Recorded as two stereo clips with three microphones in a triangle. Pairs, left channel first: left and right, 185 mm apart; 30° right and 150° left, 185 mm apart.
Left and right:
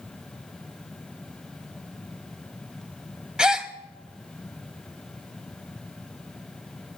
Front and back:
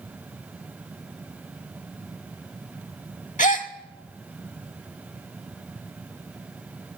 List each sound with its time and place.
3.4 s a gasp: 5° right, 0.8 m